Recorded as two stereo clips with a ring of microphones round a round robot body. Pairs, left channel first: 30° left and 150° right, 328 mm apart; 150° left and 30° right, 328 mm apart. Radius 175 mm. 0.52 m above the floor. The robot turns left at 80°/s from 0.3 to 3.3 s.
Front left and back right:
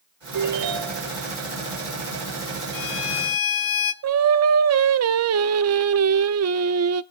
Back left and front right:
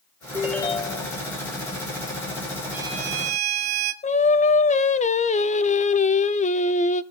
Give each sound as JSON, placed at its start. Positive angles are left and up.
{"t": 0.3, "sound": "a ringtone", "azimuth_deg": -105, "distance_m": 1.7}
{"t": 2.7, "sound": "a violin", "azimuth_deg": 55, "distance_m": 1.6}
{"t": 4.0, "sound": "singing", "azimuth_deg": -150, "distance_m": 0.8}